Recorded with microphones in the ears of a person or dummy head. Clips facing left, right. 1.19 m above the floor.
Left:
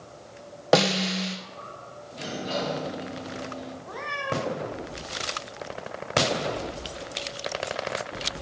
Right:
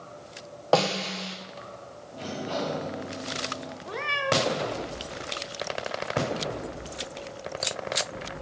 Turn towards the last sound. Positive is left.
turn(degrees=-40)  # may be behind; listen again after turning